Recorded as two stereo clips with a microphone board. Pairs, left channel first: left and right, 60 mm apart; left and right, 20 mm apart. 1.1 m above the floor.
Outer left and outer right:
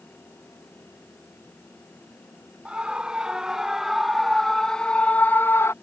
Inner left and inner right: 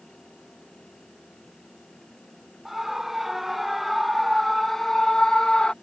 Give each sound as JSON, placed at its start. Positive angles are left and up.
{"t": 2.6, "sound": "a scream", "side_deg": -15}